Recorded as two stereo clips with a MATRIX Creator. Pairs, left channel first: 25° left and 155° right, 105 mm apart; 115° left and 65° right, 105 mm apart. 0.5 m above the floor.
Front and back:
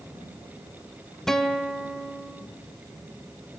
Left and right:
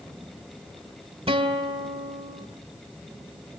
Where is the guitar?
65° right, 2.0 m.